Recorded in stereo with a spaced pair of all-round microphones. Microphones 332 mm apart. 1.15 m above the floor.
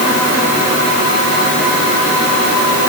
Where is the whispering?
No whispering in this recording.